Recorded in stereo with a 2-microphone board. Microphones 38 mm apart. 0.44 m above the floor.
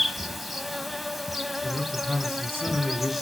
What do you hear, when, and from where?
0.0 s an insect: 5° right (ahead or behind), 0.7 m
1.6 s a man speaking: 70° right (ahead or behind), 4 m